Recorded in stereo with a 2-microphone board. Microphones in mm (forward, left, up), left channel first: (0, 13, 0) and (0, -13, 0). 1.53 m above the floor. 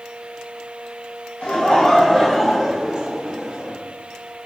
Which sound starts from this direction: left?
Laughter, at 1.4 s.